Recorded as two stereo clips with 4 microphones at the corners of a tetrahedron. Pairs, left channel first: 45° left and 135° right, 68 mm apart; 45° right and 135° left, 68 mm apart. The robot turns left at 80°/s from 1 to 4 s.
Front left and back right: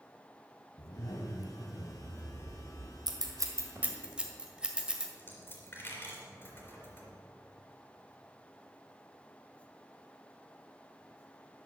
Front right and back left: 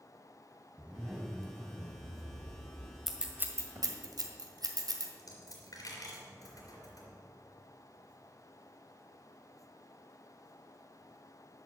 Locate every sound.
0.8 s a zipper: 65° left, 1.6 m; by 3.0 s 90° right, 1.6 m
3.1 s scissors: 140° right, 1.7 m; by 5.1 s 145° left, 1.7 m
5.2 s a dropped coin: 15° right, 3.5 m